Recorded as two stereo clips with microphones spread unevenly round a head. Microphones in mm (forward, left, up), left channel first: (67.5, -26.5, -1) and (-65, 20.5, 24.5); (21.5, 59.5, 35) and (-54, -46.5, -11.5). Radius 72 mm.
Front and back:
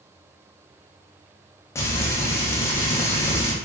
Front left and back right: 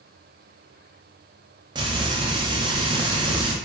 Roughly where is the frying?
Right.